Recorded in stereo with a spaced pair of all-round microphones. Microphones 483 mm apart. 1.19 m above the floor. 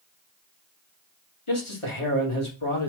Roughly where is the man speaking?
Left.